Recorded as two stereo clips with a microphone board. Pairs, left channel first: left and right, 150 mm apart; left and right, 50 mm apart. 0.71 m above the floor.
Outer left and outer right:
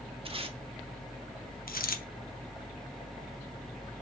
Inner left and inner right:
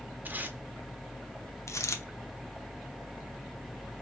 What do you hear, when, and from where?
0.2 s tape being pulled: 40° right (ahead or behind), 0.8 m
1.7 s a dropped coin: 80° left, 0.7 m